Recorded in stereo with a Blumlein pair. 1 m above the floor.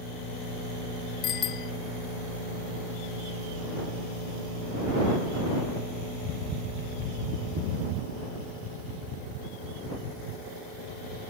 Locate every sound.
1.2 s a bicycle bell: 30° left